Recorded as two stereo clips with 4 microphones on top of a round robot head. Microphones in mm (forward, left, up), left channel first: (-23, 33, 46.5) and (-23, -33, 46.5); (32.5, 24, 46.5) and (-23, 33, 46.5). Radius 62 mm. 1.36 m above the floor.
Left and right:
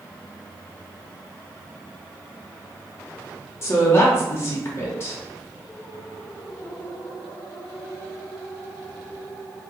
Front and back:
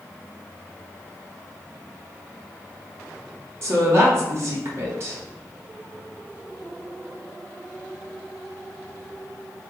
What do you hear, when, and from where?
3.6 s a woman speaking: 135° left, 1.6 m